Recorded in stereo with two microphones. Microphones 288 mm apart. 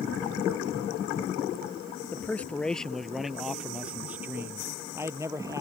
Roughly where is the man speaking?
Centre.